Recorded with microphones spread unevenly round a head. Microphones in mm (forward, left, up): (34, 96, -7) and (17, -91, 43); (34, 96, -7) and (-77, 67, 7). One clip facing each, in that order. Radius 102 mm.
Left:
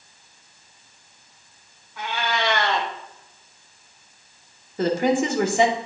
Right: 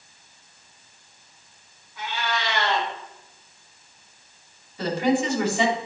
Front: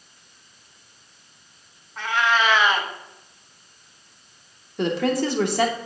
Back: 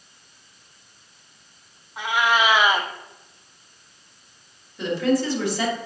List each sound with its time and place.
2.0 s a cat meowing: 130° left, 1.1 m
4.8 s a woman speaking: 45° left, 2 m